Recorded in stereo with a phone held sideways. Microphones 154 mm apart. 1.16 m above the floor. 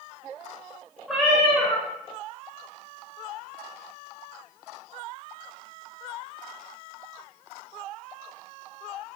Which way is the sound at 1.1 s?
Centre (ahead or behind).